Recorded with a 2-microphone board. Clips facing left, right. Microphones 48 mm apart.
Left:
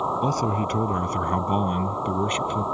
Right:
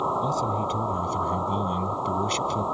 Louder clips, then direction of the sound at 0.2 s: Left 2 dB; 60° left (ahead or behind).